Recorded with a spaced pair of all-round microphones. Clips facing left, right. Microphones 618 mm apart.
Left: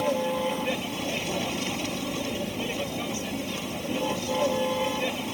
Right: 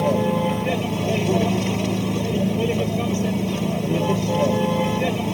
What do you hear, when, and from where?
0.0 s a vehicle: 85° right